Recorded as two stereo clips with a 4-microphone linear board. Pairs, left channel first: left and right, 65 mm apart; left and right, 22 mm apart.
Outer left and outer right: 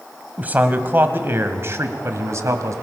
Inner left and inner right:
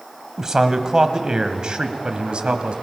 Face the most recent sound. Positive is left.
turn(degrees=-50)  # may be behind; listen again after turning